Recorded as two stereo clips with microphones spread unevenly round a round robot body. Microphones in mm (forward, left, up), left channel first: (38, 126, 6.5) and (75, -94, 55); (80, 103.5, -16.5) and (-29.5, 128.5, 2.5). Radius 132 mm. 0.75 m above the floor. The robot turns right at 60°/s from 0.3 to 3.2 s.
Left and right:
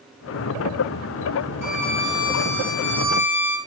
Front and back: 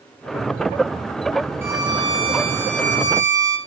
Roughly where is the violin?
Left.